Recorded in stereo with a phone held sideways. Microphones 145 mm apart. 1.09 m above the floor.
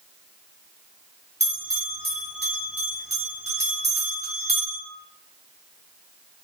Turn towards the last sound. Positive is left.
turn(degrees=-45)  # may be behind; listen again after turning